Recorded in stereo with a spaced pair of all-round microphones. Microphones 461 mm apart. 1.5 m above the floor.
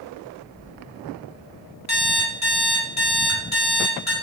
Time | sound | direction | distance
1.9 | an alarm clock | 35° left (ahead or behind) | 1.4 m